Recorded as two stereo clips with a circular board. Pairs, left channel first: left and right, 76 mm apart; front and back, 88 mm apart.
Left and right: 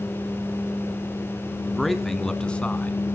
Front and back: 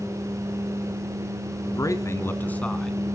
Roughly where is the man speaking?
Ahead.